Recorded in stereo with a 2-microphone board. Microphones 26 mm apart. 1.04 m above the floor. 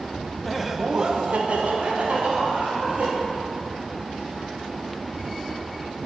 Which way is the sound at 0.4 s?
5° left (ahead or behind).